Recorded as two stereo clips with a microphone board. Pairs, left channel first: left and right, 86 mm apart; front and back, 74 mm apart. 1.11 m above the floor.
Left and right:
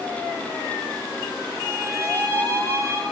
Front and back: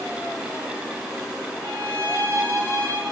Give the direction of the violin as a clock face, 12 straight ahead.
5 o'clock.